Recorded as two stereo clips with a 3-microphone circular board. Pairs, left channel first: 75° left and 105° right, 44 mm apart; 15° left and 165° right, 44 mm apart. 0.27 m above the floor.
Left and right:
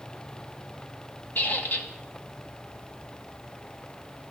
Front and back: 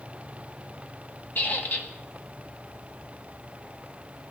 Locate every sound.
1.4 s a squeak: 45° left, 1.3 m